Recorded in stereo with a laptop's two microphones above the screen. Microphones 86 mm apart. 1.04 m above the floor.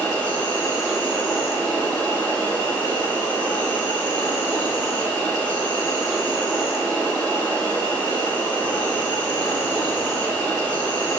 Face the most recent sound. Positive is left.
turn(degrees=20)  # may be behind; listen again after turning